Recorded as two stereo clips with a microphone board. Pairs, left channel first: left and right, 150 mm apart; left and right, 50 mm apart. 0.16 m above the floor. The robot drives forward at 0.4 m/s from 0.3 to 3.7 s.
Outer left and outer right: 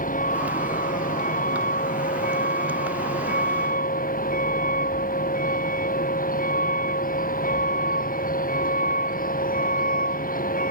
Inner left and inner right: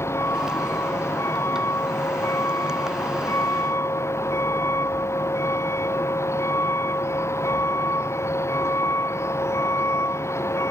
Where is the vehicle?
60° left (ahead or behind); by 10.7 s 65° left (ahead or behind).